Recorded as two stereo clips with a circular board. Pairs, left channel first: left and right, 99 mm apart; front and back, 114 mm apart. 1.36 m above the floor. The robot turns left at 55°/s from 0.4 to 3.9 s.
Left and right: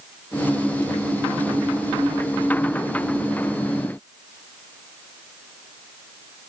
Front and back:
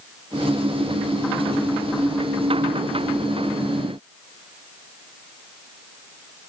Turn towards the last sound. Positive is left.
No sound to turn to.